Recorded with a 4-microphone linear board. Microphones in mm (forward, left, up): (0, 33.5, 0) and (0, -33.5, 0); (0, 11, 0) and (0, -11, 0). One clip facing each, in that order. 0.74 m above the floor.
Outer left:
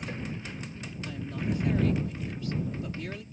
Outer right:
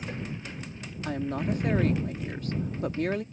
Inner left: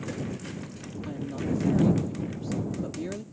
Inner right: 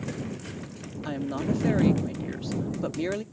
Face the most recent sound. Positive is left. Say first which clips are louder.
# outer right 5 dB, inner right 3 dB
turn(degrees=-50)  # may be behind; listen again after turning